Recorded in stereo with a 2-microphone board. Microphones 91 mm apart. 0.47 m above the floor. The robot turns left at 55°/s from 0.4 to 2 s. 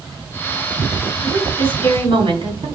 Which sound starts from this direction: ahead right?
A woman speaking, at 1.2 s.